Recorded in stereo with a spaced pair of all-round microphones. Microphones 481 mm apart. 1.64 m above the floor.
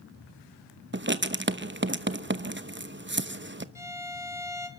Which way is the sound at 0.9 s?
25° right (ahead or behind).